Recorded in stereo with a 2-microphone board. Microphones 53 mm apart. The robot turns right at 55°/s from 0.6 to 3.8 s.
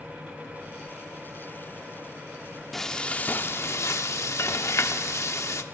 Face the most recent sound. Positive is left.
turn(degrees=65)